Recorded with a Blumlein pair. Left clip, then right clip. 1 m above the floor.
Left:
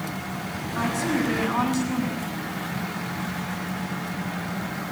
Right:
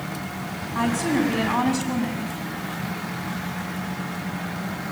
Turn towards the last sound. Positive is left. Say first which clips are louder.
# right 2 dB
turn(degrees=-50)